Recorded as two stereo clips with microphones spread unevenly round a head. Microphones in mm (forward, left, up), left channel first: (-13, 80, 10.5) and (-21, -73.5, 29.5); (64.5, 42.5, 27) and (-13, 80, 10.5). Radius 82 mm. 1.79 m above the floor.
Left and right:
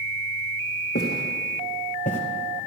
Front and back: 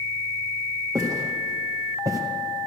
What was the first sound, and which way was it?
Footsteps, 105° left.